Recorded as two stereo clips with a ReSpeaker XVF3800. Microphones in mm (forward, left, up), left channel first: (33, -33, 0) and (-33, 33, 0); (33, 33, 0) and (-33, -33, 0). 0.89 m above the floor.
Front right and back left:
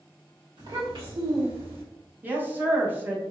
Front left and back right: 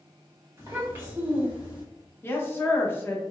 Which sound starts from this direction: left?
A woman speaking, at 2.2 s.